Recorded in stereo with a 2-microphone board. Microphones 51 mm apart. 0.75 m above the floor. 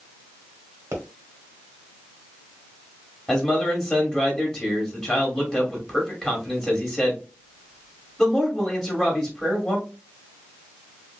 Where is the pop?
70° right (ahead or behind), 1.2 m.